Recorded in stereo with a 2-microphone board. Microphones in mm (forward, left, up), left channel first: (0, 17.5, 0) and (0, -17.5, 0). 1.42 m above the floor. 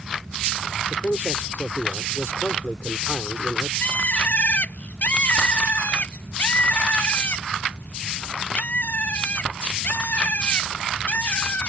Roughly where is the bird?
Left.